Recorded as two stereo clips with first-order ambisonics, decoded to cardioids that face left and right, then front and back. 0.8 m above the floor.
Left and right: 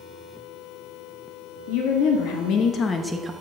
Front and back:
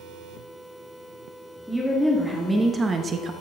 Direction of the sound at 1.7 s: 90° left.